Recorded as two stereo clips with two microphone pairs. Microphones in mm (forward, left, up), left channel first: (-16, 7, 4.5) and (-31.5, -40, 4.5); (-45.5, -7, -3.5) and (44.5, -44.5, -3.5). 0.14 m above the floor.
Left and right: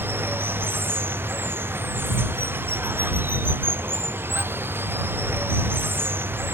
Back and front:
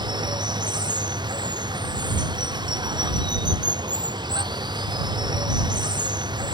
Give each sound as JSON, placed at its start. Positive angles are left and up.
{"t": 0.0, "sound": "running water", "azimuth_deg": -65}